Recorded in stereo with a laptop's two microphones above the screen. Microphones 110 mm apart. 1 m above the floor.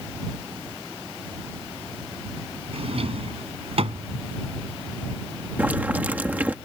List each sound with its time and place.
2.7 s a drawer: 65° right (ahead or behind)
5.6 s boiling: 15° right (ahead or behind)